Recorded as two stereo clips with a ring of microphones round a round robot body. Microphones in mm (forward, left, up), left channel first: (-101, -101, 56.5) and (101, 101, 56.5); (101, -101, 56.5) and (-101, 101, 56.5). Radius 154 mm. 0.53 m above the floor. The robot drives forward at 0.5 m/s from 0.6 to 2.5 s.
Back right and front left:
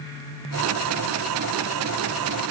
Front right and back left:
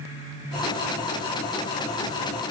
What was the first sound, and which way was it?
Only background noise.